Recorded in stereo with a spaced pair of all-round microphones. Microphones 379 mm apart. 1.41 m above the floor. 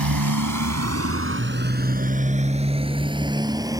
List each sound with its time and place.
0.0 s a motorcycle: 65° right (ahead or behind); by 3.8 s 10° right (ahead or behind)